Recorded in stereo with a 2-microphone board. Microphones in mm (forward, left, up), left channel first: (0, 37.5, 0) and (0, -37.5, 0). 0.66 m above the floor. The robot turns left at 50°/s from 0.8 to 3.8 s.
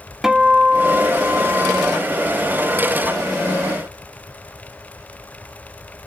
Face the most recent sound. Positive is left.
turn(degrees=-160)